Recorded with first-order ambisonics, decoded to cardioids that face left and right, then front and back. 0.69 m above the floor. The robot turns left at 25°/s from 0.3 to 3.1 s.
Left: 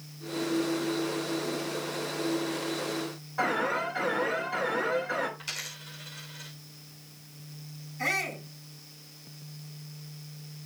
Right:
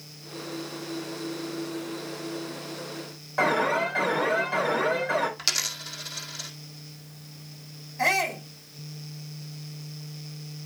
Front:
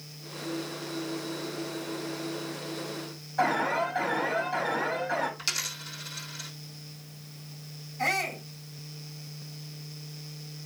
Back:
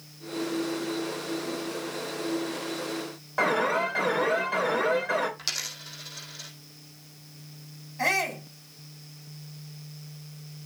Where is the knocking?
No knocking in this recording.